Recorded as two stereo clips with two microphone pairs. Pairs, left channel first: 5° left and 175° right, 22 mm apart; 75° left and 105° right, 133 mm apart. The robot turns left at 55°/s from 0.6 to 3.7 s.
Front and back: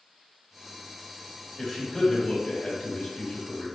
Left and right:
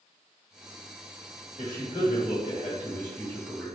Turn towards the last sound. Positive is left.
turn(degrees=-20)